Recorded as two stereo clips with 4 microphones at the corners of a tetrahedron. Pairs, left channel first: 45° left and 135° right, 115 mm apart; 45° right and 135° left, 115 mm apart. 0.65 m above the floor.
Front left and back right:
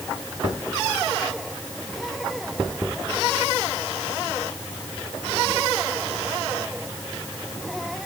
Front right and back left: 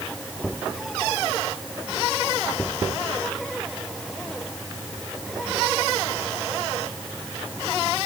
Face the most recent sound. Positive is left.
No sound to turn to.